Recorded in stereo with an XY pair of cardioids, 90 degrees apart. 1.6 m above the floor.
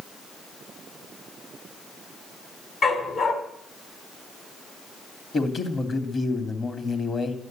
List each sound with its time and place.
2.8 s a dog barking: 65° left, 4.5 m
5.3 s a man speaking: 45° left, 3.5 m